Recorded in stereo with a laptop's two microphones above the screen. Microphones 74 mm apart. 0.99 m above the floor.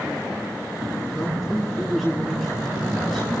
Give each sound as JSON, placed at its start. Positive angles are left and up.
{"t": 1.1, "sound": "a man speaking", "side_deg": 0, "distance_m": 10.0}